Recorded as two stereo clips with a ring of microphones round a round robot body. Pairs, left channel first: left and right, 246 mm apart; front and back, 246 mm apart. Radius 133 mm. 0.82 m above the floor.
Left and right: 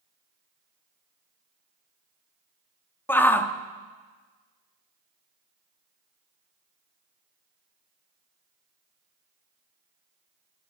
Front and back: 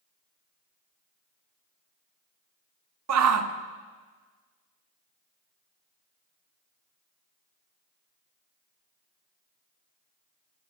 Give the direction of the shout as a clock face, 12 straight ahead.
6 o'clock.